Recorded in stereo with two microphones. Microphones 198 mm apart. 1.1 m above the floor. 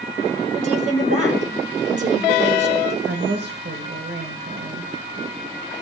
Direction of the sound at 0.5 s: 35° right (ahead or behind).